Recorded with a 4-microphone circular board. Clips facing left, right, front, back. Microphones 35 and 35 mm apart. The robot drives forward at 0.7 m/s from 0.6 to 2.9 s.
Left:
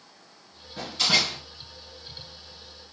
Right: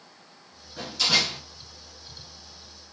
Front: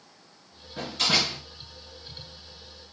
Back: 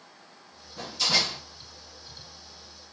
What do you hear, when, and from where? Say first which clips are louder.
0.8 s a door slam: even, front 2 dB; 30° left, 3 m; by 1.4 s 35° left, 2.5 m